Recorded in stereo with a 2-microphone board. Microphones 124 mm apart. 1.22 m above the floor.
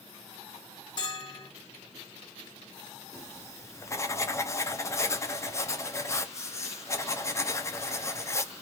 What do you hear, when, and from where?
1.0 s a bell: 35° left (ahead or behind), 1.5 m
3.1 s writing: 25° left (ahead or behind), 0.6 m